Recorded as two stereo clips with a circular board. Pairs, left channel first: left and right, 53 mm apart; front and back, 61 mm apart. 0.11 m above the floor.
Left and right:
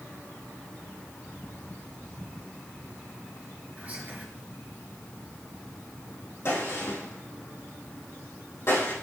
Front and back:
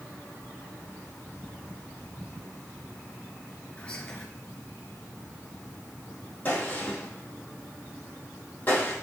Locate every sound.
3.8 s whispering: 60° right, 1.9 m
6.5 s a gunshot: 60° left, 3.5 m